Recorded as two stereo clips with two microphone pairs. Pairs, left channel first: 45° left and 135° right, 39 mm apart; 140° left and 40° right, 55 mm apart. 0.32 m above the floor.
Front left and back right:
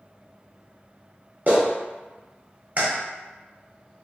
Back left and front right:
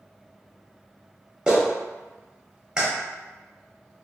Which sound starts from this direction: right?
A clap, at 1.5 s.